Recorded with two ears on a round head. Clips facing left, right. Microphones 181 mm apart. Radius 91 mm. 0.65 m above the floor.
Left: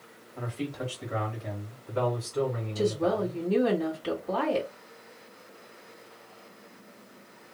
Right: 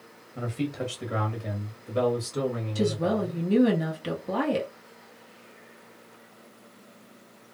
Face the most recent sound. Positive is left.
turn(degrees=-35)  # may be behind; listen again after turning